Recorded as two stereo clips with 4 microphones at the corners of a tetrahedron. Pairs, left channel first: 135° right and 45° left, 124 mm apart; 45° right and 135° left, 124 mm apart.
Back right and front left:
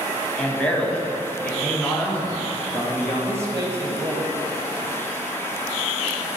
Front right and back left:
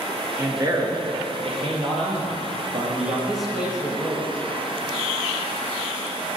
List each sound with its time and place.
0.4 s a man speaking: 155° left, 1.0 m; by 3.2 s 145° left, 3 m
3.3 s a man speaking: 55° left, 1.1 m